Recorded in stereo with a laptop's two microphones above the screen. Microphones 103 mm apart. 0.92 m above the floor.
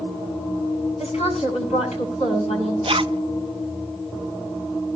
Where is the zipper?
55° right (ahead or behind), 0.5 m.